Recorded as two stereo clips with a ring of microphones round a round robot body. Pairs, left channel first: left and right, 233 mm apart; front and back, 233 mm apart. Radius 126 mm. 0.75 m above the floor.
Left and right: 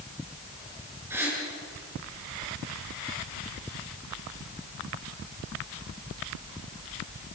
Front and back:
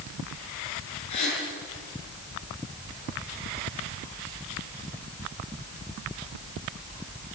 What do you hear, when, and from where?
1.1 s a gasp: 10° right, 8.5 m